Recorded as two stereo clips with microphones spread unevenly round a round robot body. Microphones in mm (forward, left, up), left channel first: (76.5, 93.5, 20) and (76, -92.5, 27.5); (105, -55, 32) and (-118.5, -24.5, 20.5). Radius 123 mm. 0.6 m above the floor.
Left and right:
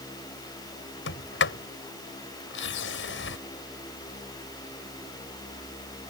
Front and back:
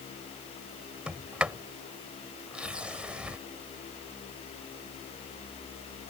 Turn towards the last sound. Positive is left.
turn(degrees=85)